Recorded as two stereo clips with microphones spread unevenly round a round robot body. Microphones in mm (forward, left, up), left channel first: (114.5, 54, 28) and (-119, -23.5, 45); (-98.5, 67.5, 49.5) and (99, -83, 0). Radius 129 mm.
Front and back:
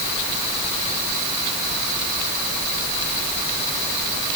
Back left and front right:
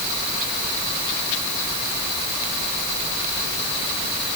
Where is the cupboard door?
I don't hear a cupboard door.